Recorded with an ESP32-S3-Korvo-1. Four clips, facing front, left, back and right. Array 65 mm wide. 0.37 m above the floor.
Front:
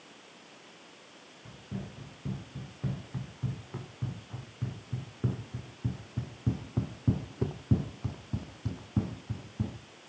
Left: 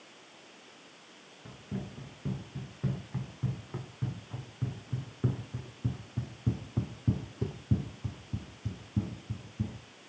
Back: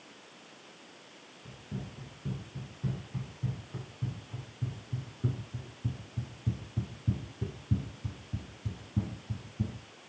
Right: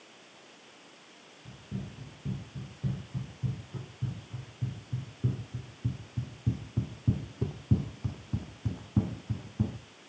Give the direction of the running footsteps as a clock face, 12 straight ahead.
10 o'clock.